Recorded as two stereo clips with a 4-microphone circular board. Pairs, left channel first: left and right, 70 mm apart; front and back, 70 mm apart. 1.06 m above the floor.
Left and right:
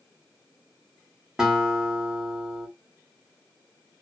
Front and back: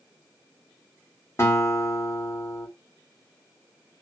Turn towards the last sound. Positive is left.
turn(degrees=-15)